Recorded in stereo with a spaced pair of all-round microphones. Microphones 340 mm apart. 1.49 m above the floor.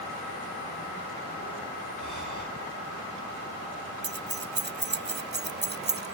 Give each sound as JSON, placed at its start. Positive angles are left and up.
{"t": 2.0, "sound": "breathing", "side_deg": -65, "distance_m": 2.5}
{"t": 4.0, "sound": "keys jangling", "side_deg": -35, "distance_m": 0.6}